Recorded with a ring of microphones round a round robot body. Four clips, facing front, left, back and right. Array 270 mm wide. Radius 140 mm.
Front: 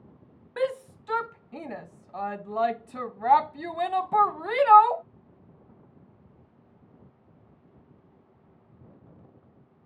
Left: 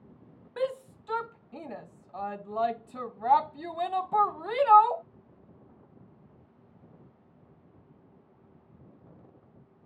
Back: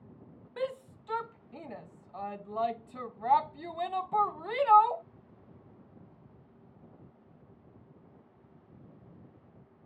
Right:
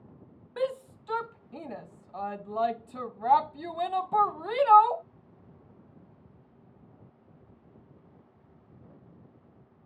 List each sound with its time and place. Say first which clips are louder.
0.6 s a shout: even, front 7 dB; 5° right